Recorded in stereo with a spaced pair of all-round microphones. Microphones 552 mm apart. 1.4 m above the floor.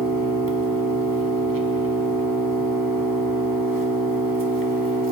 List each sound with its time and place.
0.0 s an engine running: 40° right (ahead or behind), 0.8 m